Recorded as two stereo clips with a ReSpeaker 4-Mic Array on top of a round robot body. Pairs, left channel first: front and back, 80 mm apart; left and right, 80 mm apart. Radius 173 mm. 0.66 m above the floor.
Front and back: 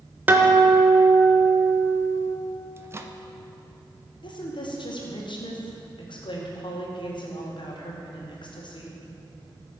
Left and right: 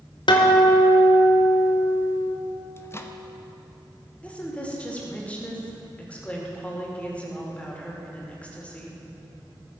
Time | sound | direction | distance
0.3 | a guitar | 115° left | 1.0 m
2.8 | a microwave | 135° left | 1.1 m
4.2 | a woman speaking | 15° left | 2 m